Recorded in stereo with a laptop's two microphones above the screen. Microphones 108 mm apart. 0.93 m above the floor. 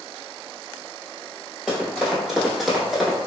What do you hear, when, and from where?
1.7 s running footsteps: 5° right (ahead or behind), 1.3 m; by 3.2 s centre (ahead or behind), 0.9 m